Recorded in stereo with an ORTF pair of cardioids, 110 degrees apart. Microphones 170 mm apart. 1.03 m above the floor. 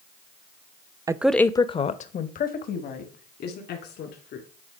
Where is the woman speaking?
20° right, 0.5 m; by 4.5 s 65° left, 2.5 m.